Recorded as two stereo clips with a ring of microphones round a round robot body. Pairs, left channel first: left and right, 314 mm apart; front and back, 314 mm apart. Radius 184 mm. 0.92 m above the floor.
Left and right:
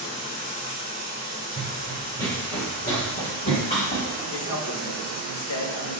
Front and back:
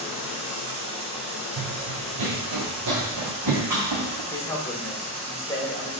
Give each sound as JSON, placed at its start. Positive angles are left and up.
{"t": 0.0, "sound": "running water", "azimuth_deg": 110, "distance_m": 2.5}
{"t": 1.6, "sound": "running footsteps", "azimuth_deg": -170, "distance_m": 1.5}
{"t": 4.3, "sound": "a man speaking", "azimuth_deg": 80, "distance_m": 1.8}